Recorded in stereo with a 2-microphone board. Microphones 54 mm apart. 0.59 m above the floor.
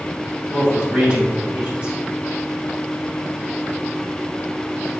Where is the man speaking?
25° right (ahead or behind), 3 m.